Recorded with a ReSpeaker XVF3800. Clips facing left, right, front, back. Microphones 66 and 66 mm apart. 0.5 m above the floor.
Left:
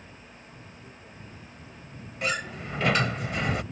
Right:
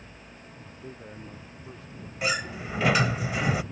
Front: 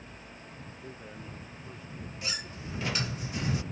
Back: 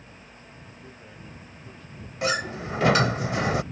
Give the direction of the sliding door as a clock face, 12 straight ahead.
6 o'clock.